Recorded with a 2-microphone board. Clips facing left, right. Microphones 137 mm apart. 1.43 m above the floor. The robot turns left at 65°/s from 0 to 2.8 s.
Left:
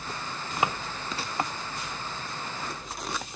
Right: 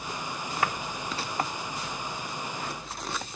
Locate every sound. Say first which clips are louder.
0.6 s a drawer: left 2 dB; 20° left (ahead or behind), 0.6 m; by 0.8 s 25° left (ahead or behind), 0.6 m